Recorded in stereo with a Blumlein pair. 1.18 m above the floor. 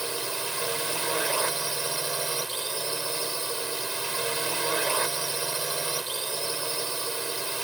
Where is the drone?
5° right.